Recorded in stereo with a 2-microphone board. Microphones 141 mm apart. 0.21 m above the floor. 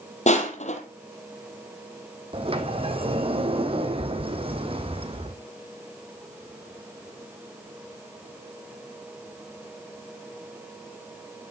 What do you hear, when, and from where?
0.3 s crushing: 55° left (ahead or behind), 2.5 m
2.3 s a sliding door: 40° right (ahead or behind), 1.5 m